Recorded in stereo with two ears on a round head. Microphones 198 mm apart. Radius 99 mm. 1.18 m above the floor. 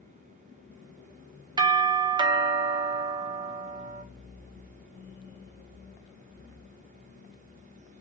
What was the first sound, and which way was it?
A doorbell, 20° right (ahead or behind).